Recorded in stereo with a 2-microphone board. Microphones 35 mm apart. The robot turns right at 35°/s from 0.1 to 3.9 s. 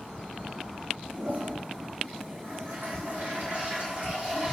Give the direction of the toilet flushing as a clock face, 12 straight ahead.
4 o'clock.